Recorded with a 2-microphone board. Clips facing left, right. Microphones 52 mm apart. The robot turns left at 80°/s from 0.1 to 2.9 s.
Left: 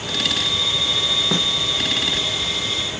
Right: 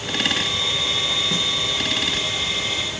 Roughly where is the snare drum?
Left.